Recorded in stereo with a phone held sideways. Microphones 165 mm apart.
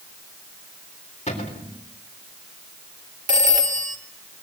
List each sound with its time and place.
1.3 s a cupboard door: 40° left (ahead or behind), 3.5 m
3.3 s a phone ringing: 50° right (ahead or behind), 2.0 m